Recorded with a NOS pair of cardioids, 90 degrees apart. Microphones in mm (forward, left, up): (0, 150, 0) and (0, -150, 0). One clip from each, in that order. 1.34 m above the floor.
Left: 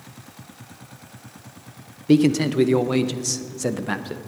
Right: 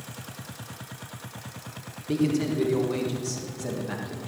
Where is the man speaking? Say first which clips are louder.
Left 8 dB; 55° left, 1.0 m.